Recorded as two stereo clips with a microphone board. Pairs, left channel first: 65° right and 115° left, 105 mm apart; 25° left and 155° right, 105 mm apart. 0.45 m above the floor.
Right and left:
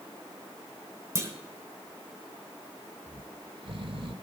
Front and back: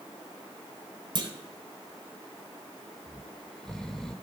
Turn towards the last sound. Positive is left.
turn(degrees=105)